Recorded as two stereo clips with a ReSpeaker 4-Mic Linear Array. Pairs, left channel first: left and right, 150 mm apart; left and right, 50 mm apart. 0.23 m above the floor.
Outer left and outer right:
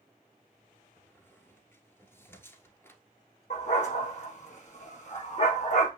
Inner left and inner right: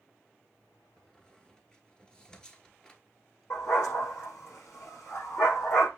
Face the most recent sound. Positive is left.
turn(degrees=50)  # may be behind; listen again after turning